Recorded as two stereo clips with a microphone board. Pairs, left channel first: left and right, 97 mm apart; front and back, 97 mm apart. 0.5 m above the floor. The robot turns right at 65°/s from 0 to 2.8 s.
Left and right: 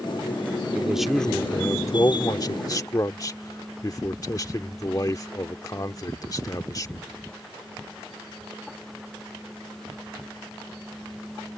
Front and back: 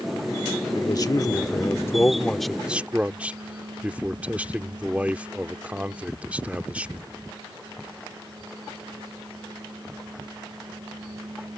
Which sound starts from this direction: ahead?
A man speaking, at 0.8 s.